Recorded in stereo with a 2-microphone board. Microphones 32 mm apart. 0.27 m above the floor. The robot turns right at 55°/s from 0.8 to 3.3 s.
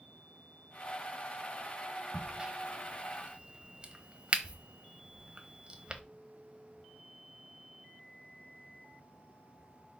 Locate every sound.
2.1 s a crack: 15° right (ahead or behind), 1.1 m; by 6.0 s 30° right (ahead or behind), 1.1 m